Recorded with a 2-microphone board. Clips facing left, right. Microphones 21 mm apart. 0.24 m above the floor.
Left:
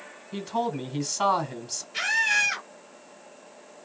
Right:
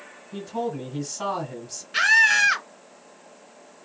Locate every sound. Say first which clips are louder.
0.3 s a man speaking: left 1 dB; 35° left (ahead or behind), 1.8 m
1.9 s a scream: right 6 dB; 65° right (ahead or behind), 2.5 m